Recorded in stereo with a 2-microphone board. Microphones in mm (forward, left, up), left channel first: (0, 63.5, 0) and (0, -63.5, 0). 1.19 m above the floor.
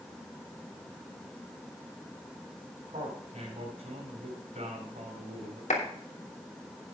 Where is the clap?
80° left, 3 m.